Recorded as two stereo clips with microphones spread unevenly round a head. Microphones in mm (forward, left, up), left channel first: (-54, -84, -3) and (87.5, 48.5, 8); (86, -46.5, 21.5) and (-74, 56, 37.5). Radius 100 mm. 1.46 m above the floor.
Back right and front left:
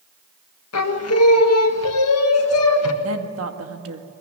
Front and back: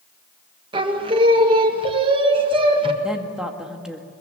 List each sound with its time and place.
0.7 s singing: 145° right, 1.8 m
3.0 s a woman speaking: 60° left, 1.9 m